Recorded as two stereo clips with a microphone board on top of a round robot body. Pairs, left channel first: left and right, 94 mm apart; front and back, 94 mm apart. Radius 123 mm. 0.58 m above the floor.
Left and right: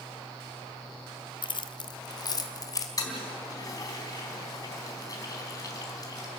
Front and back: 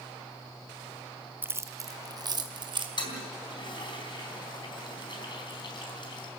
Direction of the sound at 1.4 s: 115° left.